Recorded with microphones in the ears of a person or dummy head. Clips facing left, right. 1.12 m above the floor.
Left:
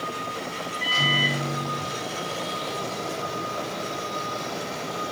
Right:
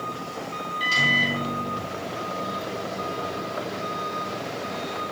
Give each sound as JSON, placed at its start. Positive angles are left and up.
{"t": 0.8, "sound": "a microwave", "side_deg": -55, "distance_m": 5.0}